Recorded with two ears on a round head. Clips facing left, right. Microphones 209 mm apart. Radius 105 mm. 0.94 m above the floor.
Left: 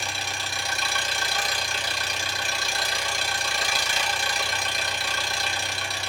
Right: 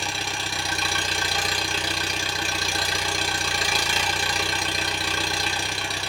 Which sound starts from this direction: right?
An engine running, at 0.0 s.